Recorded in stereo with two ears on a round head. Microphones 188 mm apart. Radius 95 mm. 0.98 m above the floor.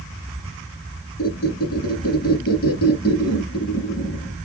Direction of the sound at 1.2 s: 50° left (ahead or behind).